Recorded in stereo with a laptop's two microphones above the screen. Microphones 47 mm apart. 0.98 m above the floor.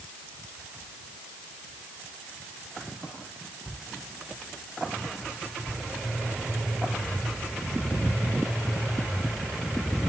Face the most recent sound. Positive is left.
No sound to turn to.